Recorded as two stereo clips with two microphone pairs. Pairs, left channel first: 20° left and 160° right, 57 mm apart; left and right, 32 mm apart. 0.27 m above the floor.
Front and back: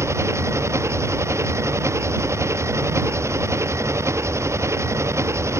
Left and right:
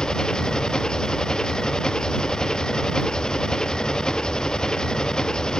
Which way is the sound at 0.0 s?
160° left.